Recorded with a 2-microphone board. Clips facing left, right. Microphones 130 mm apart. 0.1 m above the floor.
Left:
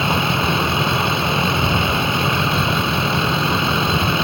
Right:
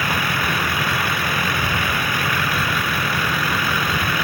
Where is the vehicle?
25° left (ahead or behind).